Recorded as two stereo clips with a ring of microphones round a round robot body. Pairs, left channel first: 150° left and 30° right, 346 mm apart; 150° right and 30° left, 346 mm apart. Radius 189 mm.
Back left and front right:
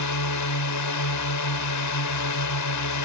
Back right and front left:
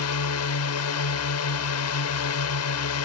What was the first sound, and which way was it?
A drone, 175° left.